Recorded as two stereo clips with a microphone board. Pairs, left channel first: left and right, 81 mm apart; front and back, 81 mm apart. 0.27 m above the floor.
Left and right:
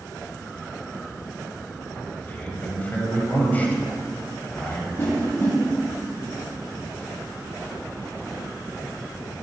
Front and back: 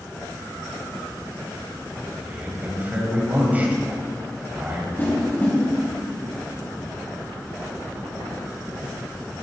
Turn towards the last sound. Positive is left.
turn(degrees=55)